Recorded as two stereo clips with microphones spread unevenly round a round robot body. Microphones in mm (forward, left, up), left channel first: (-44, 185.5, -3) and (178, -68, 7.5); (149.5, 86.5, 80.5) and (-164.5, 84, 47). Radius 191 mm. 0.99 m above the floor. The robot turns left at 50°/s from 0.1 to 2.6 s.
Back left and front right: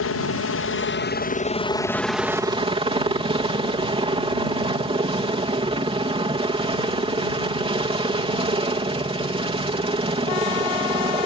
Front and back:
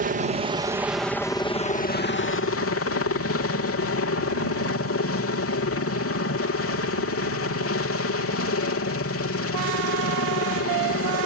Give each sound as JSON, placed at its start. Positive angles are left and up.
{"t": 0.0, "sound": "a helicopter", "azimuth_deg": 145}